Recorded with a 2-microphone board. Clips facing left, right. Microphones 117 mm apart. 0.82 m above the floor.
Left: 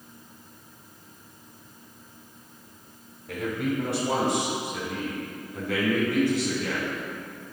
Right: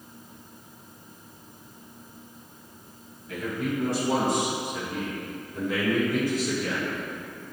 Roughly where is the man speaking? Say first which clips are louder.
Left 1 dB; left.